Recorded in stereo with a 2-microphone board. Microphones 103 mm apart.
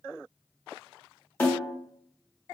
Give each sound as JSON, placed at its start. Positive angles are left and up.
{"t": 1.4, "sound": "a snare drum", "side_deg": 20, "distance_m": 0.9}